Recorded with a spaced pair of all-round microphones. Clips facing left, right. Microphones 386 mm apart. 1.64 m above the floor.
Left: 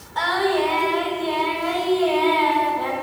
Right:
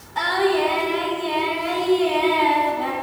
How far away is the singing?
About 2 m.